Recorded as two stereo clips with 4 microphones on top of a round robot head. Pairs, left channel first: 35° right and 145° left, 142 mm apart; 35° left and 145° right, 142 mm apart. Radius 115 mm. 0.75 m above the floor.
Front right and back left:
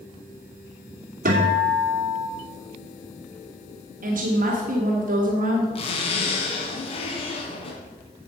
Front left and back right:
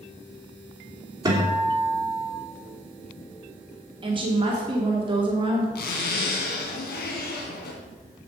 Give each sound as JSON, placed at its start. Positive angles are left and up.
{"t": 1.2, "sound": "a guitar", "azimuth_deg": 150, "distance_m": 3.0}
{"t": 4.0, "sound": "a woman speaking", "azimuth_deg": 160, "distance_m": 1.9}
{"t": 5.8, "sound": "a zipper", "azimuth_deg": 20, "distance_m": 2.0}